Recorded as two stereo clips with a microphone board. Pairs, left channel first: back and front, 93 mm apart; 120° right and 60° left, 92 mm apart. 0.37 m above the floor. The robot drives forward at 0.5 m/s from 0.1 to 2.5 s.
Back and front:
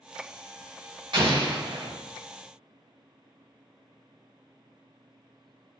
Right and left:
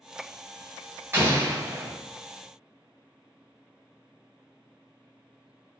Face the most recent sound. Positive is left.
turn(degrees=-5)